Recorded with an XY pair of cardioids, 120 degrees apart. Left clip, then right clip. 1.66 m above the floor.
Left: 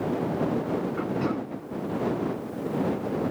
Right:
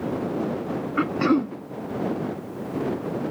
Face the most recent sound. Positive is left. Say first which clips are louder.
# right 7 dB
turn(degrees=-65)